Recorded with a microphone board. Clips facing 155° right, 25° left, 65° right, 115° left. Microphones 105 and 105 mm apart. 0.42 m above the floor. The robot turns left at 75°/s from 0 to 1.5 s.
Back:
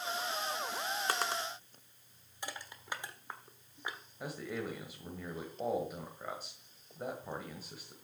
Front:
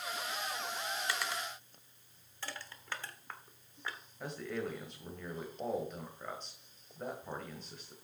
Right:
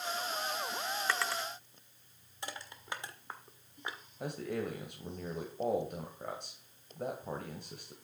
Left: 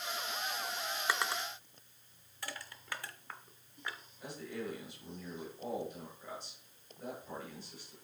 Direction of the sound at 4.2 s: 75° right.